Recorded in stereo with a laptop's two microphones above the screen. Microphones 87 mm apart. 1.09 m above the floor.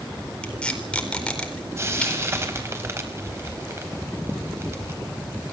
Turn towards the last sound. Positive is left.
turn(degrees=-30)  # may be behind; listen again after turning